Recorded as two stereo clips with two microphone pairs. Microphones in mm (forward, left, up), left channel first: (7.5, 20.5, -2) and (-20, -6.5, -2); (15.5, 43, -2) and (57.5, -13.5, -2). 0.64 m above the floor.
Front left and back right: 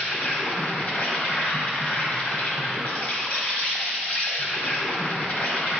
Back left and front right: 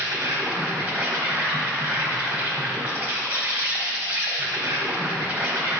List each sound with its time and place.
0.0 s an insect: 10° left, 1.5 m